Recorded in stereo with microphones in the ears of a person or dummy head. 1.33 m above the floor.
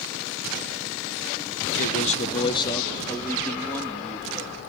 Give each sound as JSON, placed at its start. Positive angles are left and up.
{"t": 1.8, "sound": "a man speaking", "side_deg": 50, "distance_m": 0.9}